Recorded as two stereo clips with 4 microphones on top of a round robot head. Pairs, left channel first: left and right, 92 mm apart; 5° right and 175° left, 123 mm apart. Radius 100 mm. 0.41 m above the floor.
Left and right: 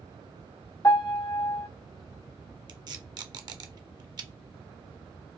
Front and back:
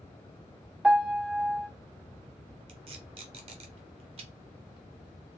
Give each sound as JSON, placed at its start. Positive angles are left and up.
{"t": 0.8, "sound": "a piano", "azimuth_deg": 100, "distance_m": 1.0}
{"t": 2.7, "sound": "tape being pulled", "azimuth_deg": -135, "distance_m": 0.6}